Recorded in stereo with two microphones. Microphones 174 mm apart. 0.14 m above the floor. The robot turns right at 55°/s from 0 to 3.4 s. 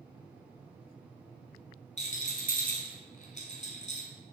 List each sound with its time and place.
2.0 s a rattle: 40° left (ahead or behind), 1.0 m